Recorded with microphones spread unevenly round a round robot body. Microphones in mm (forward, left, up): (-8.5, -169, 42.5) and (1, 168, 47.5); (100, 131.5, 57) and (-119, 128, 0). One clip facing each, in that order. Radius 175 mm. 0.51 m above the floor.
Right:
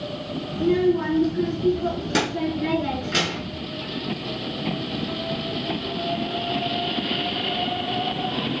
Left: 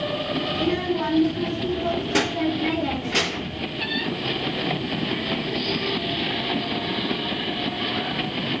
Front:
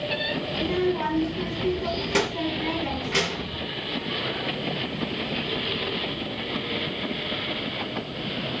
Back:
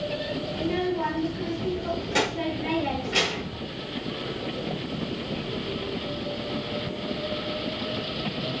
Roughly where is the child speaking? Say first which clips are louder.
Right 6 dB, front 3 dB; ahead.